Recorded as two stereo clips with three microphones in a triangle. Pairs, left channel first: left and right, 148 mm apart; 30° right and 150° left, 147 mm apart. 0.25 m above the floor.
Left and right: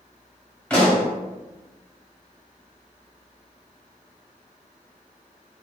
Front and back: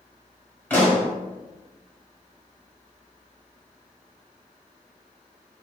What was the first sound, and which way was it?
A pop, 20° left.